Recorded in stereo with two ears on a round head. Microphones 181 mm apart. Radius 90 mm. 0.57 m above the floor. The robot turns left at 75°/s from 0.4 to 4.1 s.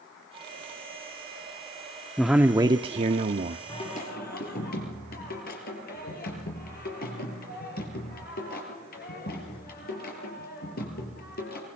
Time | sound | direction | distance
2.2 | a man speaking | 5° left | 0.8 m
3.7 | singing | 160° left | 5.5 m